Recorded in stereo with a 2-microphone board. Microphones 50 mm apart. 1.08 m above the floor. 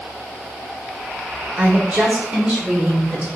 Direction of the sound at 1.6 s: 35° right (ahead or behind).